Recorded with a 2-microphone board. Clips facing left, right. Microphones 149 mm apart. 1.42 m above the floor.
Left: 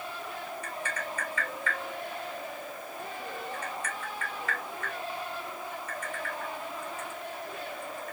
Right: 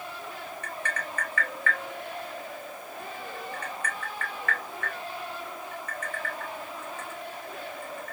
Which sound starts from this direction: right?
Tapping, at 0.6 s.